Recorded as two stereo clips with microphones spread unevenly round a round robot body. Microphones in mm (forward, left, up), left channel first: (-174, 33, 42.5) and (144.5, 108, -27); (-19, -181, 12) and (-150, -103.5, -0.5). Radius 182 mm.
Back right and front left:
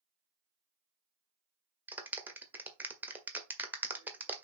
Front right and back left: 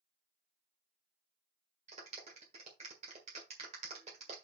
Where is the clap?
95° left, 1.6 m.